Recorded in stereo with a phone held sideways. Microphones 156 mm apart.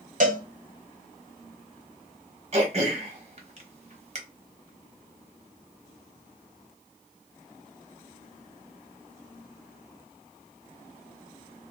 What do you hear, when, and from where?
0.2 s a cowbell: 55° right (ahead or behind), 0.8 m
2.5 s throat clearing: 45° right (ahead or behind), 1.0 m